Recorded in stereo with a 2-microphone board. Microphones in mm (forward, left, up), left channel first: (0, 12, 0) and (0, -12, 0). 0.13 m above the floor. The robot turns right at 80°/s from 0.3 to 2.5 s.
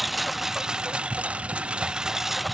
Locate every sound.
0.0 s a lawn mower: 10° right (ahead or behind); by 2.5 s 5° left (ahead or behind)